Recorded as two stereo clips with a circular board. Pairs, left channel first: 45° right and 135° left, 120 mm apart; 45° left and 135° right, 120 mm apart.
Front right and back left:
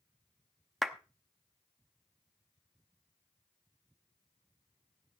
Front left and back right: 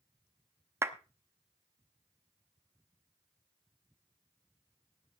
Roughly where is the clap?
Behind right.